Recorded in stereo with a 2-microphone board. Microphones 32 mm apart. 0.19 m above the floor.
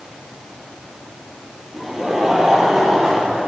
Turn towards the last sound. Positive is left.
turn(degrees=-10)  # may be behind; listen again after turning